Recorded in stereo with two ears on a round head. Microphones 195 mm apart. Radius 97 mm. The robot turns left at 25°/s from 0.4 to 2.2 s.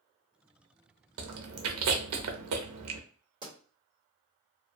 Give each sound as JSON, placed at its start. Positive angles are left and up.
{"t": 1.2, "sound": "chewing", "side_deg": -60, "distance_m": 0.6}
{"t": 3.4, "sound": "a pop", "side_deg": -20, "distance_m": 1.5}